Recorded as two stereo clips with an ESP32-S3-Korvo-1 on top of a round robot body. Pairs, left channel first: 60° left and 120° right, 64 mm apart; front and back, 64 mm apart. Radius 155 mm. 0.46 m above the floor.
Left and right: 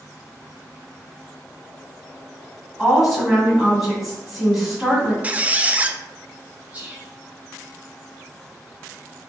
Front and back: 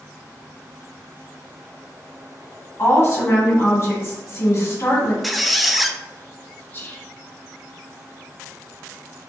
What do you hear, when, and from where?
2.8 s a woman speaking: 35° right, 1.8 m
5.2 s a squeak: 90° right, 0.5 m
6.7 s whispering: 55° right, 1.6 m